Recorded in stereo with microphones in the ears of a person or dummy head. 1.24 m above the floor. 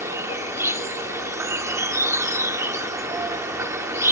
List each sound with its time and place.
0.0 s an insect: 15° right (ahead or behind)